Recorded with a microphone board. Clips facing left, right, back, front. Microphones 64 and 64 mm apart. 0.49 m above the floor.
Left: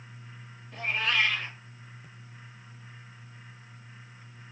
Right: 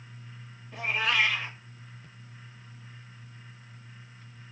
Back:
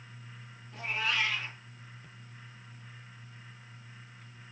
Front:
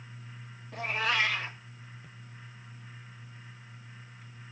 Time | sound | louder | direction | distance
0.7 | a cat meowing | right 1 dB, front 3 dB | 10° right | 0.9 m